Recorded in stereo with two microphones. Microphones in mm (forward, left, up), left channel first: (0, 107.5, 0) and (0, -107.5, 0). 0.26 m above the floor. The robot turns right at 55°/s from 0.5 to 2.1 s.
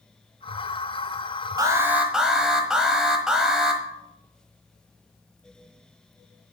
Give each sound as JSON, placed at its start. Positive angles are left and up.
{"t": 1.6, "sound": "an alarm", "side_deg": -20, "distance_m": 1.3}